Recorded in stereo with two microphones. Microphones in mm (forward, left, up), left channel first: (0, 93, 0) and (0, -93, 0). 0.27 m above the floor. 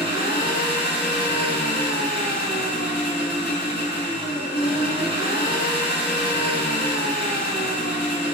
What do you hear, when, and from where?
0.0 s an engine running: 65° left (ahead or behind), 1.3 m